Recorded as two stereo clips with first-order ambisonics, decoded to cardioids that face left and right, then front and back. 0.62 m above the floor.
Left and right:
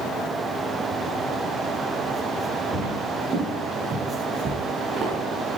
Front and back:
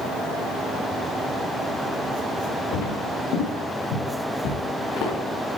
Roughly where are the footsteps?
Ahead.